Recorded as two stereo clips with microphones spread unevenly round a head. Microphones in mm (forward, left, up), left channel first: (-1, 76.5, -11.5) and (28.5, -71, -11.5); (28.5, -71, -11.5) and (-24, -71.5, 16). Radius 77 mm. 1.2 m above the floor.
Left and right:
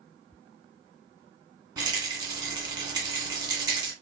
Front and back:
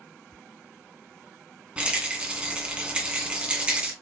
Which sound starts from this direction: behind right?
A rattle, at 1.8 s.